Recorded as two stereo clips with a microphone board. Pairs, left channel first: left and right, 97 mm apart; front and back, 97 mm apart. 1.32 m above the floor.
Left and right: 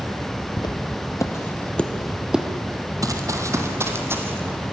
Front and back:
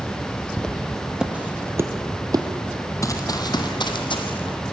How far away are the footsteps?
About 1.9 m.